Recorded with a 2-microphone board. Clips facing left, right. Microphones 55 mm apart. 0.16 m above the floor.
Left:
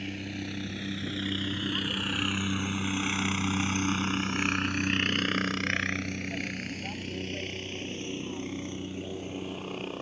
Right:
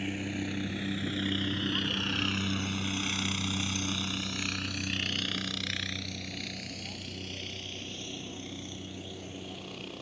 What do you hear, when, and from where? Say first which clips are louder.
0.0 s a helicopter: right 2 dB; 10° right (ahead or behind); by 10.0 s 35° left (ahead or behind)